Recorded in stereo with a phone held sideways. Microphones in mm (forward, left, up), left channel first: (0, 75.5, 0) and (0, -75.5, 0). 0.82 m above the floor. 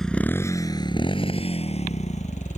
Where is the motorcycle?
Centre (ahead or behind); by 2.6 s 50° left (ahead or behind).